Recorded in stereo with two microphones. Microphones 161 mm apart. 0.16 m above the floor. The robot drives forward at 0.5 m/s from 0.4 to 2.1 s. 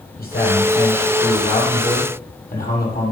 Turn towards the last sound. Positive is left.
turn(degrees=70)  # may be behind; listen again after turning